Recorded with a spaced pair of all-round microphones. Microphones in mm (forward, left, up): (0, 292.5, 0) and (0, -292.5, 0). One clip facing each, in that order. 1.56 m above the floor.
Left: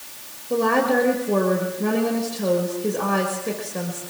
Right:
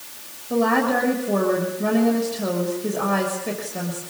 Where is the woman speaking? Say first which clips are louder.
Even; 5° right (ahead or behind), 6 m.